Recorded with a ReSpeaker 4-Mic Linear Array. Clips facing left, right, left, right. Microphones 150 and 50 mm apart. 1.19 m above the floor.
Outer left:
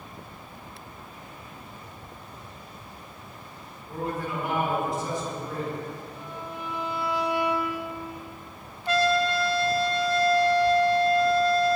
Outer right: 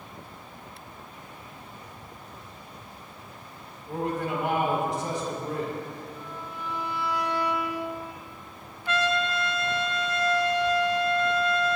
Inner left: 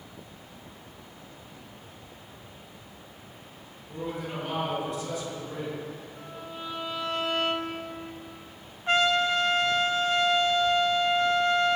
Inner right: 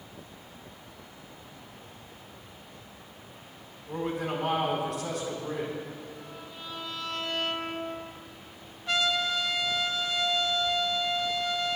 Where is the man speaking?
85° right, 4.5 m.